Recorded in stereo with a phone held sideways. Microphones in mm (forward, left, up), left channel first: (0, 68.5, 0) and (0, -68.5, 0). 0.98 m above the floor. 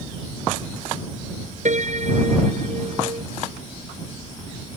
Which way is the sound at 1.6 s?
60° right (ahead or behind).